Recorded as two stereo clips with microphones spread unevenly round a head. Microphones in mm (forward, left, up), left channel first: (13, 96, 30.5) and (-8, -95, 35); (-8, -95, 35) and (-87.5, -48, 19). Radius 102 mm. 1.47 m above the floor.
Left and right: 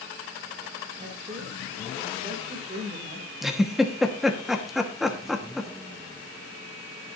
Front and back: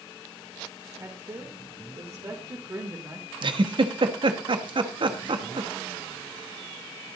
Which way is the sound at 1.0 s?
155° right.